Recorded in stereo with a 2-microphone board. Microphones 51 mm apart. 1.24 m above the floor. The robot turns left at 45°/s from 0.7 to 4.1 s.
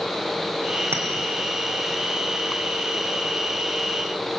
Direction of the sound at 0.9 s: 50° right (ahead or behind).